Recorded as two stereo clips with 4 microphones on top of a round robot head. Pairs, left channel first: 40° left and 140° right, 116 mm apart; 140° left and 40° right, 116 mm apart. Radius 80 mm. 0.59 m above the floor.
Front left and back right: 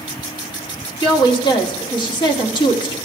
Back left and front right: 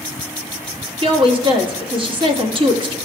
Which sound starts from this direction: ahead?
A woman speaking, at 1.0 s.